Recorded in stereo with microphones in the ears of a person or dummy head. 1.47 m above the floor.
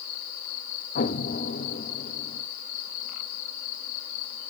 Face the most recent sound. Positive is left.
turn(degrees=55)  # may be behind; listen again after turning